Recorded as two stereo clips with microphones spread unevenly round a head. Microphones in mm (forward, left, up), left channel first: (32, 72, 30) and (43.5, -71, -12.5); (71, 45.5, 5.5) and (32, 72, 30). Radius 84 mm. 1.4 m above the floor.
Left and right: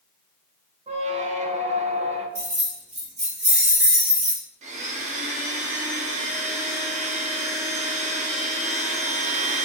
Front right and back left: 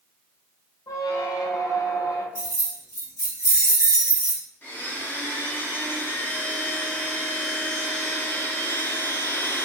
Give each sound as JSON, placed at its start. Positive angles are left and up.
{"t": 0.9, "sound": "a squeak", "azimuth_deg": -35, "distance_m": 0.6}
{"t": 2.4, "sound": "keys jangling", "azimuth_deg": -45, "distance_m": 1.8}
{"t": 4.6, "sound": "a blender", "azimuth_deg": -70, "distance_m": 0.7}